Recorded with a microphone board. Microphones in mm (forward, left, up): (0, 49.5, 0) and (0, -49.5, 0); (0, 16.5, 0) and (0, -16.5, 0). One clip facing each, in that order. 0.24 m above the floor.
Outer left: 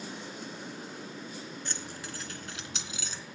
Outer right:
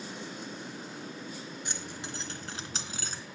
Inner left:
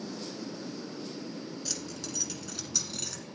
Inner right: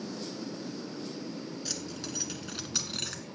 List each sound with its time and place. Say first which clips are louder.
1.6 s keys jangling: outer right 1 dB, inner right 1 dB; 15° right (ahead or behind), 2 m; by 3.2 s 50° right (ahead or behind), 1.8 m